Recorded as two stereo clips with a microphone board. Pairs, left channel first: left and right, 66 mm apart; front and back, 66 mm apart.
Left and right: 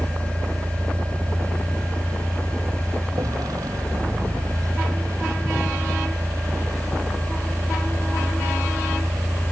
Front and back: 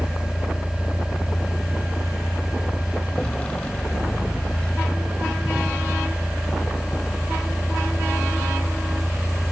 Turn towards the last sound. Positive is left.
turn(degrees=-70)